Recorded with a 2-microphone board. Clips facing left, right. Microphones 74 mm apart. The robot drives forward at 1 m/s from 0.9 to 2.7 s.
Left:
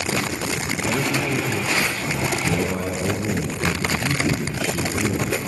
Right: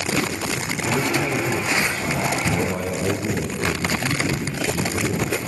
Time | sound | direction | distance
0.8 | a man speaking | centre (ahead or behind) | 4.5 m